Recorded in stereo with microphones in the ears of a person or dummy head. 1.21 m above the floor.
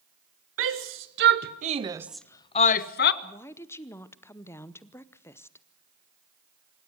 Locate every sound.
0.6 s a shout: 65° right (ahead or behind), 1.4 m; by 3.1 s 55° left (ahead or behind), 1.0 m
3.2 s a woman speaking: 15° left (ahead or behind), 0.8 m